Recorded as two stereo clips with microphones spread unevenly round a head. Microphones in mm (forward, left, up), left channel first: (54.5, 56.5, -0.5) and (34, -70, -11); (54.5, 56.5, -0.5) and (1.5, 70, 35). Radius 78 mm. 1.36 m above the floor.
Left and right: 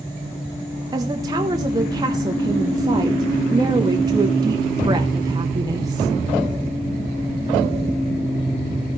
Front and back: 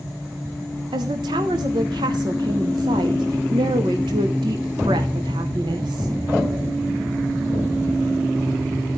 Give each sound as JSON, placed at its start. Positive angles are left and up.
{"t": 0.9, "sound": "a woman speaking", "azimuth_deg": -170, "distance_m": 1.0}